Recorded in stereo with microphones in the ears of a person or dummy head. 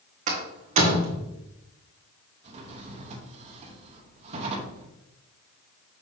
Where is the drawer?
40° right (ahead or behind), 1.1 m.